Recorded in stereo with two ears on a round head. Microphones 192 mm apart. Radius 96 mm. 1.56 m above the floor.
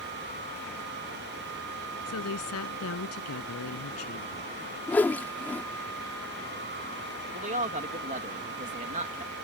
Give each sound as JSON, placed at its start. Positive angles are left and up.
{"t": 2.1, "sound": "a woman speaking", "side_deg": 80}
{"t": 4.9, "sound": "a whoosh", "side_deg": 10}
{"t": 7.3, "sound": "a man speaking", "side_deg": -35}